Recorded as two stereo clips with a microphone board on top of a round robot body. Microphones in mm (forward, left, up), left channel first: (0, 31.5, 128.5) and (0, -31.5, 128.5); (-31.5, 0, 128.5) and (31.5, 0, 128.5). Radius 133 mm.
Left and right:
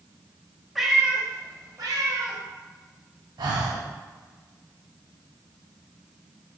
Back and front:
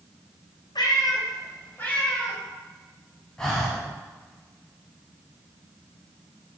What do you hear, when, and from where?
0.8 s a cat meowing: straight behind, 0.7 m; by 2.4 s 100° right, 1.3 m
3.4 s breathing: 100° right, 0.7 m